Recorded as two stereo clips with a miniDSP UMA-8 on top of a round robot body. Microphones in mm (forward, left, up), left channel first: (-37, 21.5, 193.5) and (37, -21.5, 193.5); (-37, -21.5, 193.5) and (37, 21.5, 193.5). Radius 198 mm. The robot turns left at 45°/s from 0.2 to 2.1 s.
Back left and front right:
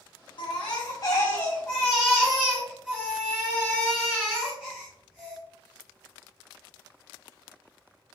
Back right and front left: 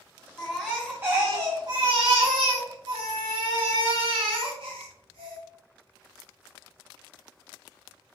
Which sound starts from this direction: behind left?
A baby crying, at 0.4 s.